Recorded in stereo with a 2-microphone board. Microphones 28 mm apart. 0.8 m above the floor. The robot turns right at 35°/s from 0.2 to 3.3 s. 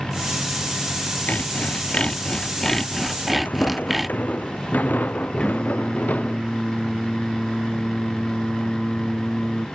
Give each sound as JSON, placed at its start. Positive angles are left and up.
{"t": 1.3, "sound": "sawing", "azimuth_deg": 110}
{"t": 3.5, "sound": "footsteps", "side_deg": 75}
{"t": 5.4, "sound": "singing", "side_deg": 35}